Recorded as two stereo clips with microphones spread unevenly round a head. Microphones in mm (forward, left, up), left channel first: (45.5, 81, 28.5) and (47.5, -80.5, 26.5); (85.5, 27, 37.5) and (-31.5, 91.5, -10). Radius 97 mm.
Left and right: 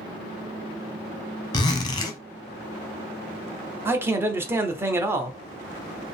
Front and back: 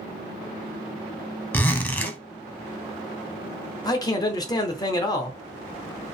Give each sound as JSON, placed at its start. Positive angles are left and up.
{"t": 1.5, "sound": "a zipper", "azimuth_deg": 30, "distance_m": 0.8}
{"t": 3.9, "sound": "a man speaking", "azimuth_deg": -15, "distance_m": 0.7}